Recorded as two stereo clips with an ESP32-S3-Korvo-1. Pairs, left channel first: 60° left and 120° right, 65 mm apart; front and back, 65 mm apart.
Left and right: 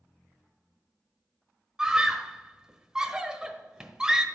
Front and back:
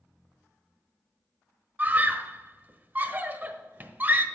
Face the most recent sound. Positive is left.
turn(degrees=170)